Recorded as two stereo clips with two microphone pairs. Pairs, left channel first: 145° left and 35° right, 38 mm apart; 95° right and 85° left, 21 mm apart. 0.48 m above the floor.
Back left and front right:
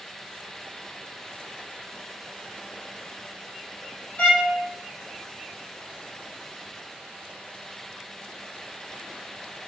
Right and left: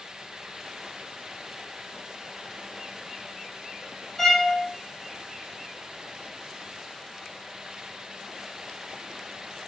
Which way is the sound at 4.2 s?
165° right.